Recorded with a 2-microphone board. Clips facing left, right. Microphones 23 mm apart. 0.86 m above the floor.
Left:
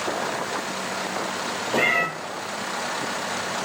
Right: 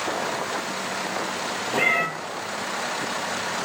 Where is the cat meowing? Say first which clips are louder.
Left 1 dB; 60° left (ahead or behind), 2 m.